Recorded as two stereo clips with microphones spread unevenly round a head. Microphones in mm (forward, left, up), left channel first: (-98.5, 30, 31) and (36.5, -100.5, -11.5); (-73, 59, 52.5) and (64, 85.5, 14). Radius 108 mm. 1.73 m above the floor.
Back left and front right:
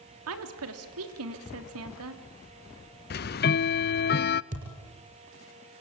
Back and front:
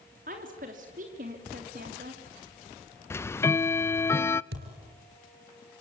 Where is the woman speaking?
40° right, 3 m.